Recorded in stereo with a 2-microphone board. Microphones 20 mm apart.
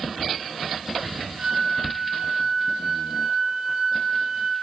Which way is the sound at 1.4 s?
40° right (ahead or behind).